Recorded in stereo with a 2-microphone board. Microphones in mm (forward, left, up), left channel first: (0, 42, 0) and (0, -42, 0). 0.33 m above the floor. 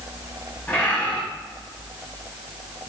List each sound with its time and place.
0.7 s a bird: 25° left (ahead or behind), 1.9 m